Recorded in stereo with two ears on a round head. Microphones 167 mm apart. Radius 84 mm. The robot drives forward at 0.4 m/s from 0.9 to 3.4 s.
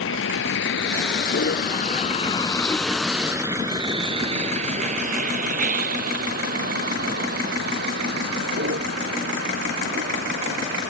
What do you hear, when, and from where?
0.0 s a vehicle: 80° left; by 10.9 s 65° right (ahead or behind)